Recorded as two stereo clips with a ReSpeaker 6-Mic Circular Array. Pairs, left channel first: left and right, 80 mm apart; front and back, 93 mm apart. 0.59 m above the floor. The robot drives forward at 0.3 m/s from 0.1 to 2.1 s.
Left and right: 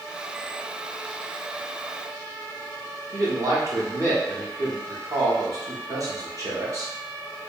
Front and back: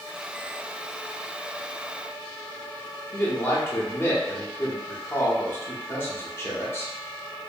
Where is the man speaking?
60° right, 0.9 m.